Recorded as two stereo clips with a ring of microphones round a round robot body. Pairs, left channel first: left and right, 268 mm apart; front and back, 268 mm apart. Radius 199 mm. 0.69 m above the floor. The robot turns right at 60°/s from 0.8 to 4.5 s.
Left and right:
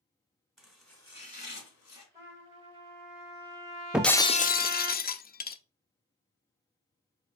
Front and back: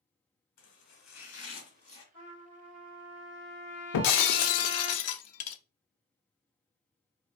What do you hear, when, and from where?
0.6 s chopping: straight ahead, 2.5 m; by 2.0 s 75° left, 2.5 m
2.1 s a trumpet: 165° right, 2.5 m; by 4.9 s 20° right, 2.5 m
3.9 s breaking glass: 5° right, 0.5 m; by 5.6 s 30° left, 0.5 m